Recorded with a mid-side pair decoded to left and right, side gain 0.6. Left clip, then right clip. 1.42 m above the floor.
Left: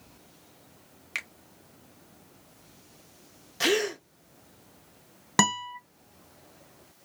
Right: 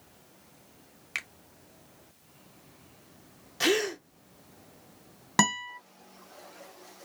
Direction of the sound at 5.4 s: 10° left.